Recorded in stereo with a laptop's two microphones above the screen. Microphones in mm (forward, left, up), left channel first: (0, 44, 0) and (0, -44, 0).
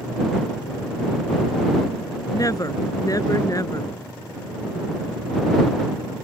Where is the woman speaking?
40° left (ahead or behind).